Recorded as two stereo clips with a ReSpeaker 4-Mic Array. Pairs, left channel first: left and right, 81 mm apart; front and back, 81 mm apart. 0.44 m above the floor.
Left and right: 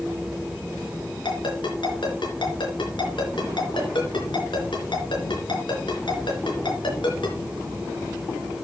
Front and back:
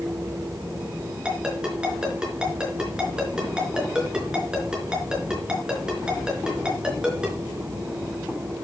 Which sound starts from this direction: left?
A ringtone, at 1.2 s.